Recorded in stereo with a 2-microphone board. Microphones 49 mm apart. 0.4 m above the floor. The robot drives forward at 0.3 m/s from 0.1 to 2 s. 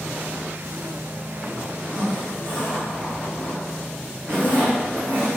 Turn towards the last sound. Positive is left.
turn(degrees=-55)  # may be behind; listen again after turning